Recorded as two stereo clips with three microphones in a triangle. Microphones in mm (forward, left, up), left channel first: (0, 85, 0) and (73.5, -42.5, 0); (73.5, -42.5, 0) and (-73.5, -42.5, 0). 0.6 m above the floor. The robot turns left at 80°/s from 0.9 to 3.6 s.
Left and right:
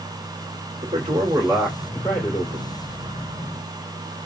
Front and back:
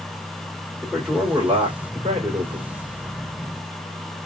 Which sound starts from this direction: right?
A man speaking, at 0.8 s.